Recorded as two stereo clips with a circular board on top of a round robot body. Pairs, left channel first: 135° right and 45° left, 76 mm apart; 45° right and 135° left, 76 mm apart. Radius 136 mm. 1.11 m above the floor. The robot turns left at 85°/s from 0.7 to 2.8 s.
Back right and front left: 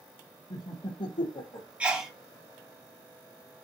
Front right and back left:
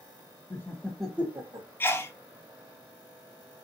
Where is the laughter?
105° right, 0.7 m; by 1.7 s 170° left, 0.7 m.